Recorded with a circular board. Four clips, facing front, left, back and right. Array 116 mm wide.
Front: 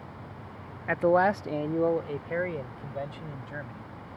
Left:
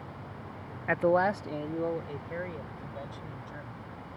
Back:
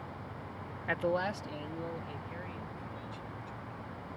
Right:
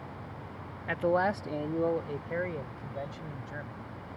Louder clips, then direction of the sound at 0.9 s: Left 2 dB, front 10 dB; 55° left.